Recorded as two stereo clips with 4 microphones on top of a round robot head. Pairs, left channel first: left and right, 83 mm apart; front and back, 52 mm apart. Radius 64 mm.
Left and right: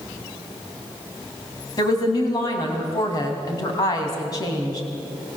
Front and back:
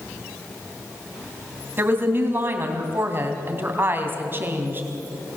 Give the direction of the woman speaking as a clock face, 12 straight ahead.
7 o'clock.